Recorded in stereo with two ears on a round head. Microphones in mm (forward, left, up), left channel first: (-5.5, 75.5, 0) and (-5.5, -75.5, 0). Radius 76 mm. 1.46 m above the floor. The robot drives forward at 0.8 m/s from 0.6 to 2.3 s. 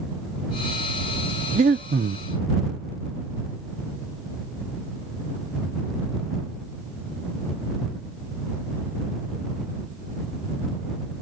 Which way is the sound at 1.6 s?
40° right (ahead or behind).